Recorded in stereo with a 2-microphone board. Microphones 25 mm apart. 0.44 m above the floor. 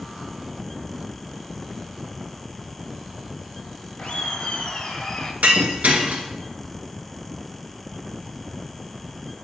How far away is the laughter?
About 2 m.